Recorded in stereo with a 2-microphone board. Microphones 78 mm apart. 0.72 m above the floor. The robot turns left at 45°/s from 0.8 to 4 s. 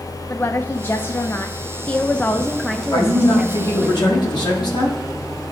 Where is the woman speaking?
30° left (ahead or behind), 0.5 m; by 3.9 s 20° right (ahead or behind), 0.5 m.